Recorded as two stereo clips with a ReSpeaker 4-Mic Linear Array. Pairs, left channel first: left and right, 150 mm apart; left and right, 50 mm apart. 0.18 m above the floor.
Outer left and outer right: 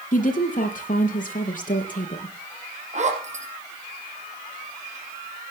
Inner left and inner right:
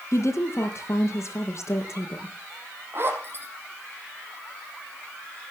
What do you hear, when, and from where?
0.1 s a woman speaking: 55° left (ahead or behind), 5 m
2.9 s a zipper: 50° right (ahead or behind), 5.5 m